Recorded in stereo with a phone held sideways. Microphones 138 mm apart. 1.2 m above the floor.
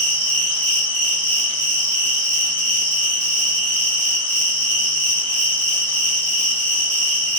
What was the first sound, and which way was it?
An insect, 15° left (ahead or behind).